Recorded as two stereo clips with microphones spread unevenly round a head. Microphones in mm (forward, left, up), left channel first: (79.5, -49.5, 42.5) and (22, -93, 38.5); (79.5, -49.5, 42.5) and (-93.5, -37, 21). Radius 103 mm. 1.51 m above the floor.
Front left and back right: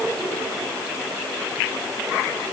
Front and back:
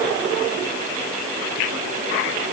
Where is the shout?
I don't hear a shout.